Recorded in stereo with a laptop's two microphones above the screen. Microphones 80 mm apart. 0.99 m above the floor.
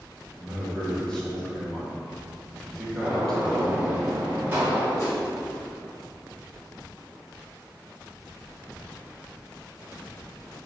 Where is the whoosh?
40° left (ahead or behind), 2.5 m.